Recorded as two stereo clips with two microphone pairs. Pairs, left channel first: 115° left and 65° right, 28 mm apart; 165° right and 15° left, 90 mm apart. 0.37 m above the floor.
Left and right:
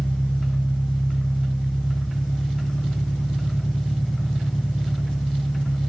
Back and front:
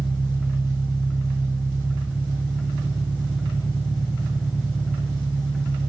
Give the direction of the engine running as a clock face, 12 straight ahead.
9 o'clock.